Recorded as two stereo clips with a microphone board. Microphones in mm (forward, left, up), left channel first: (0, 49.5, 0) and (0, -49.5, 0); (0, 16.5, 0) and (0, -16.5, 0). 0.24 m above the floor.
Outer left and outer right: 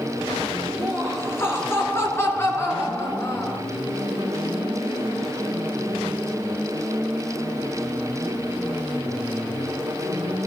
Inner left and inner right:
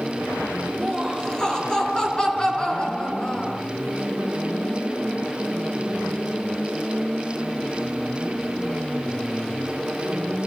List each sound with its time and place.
0.8 s laughter: 25° left (ahead or behind), 3.5 m